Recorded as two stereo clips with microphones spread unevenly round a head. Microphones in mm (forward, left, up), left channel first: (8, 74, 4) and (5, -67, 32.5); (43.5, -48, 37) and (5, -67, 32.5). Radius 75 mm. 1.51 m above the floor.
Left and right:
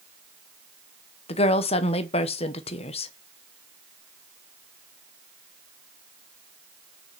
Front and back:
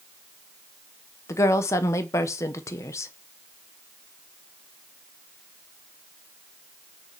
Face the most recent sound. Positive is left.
turn(degrees=35)